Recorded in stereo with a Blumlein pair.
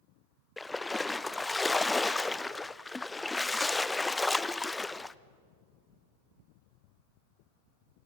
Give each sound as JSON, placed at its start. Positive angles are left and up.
{"t": 0.6, "sound": "a splash", "azimuth_deg": 10, "distance_m": 0.5}